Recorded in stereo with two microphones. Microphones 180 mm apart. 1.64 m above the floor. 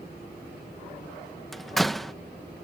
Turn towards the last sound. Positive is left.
turn(degrees=0)  # may be behind; listen again after turning